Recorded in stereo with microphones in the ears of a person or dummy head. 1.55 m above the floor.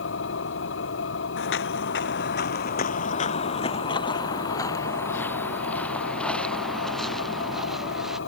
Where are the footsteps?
70° left (ahead or behind); by 8.2 s centre (ahead or behind).